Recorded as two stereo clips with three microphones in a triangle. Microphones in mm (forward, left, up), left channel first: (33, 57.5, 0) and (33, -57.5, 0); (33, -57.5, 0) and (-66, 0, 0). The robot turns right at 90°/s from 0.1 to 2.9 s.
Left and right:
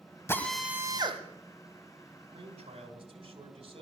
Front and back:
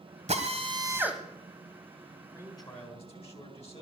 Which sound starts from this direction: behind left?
A drill, at 0.3 s.